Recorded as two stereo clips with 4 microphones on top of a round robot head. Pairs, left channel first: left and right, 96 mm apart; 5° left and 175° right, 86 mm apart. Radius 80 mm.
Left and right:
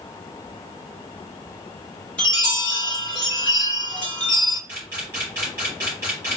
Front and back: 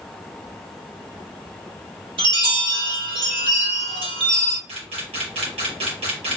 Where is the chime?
170° left, 2.5 m.